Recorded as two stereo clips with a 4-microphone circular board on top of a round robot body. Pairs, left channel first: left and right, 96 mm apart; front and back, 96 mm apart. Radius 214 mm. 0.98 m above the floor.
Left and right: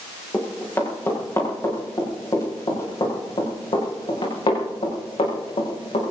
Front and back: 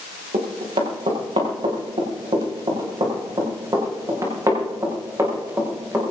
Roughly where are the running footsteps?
Behind.